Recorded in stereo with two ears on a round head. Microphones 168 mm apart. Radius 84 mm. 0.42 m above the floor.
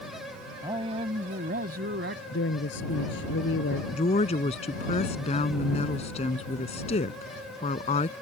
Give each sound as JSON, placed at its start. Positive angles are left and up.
{"t": 0.6, "sound": "a man speaking", "side_deg": -20}
{"t": 2.3, "sound": "a woman speaking", "side_deg": 70}
{"t": 3.9, "sound": "a woman speaking", "side_deg": 35}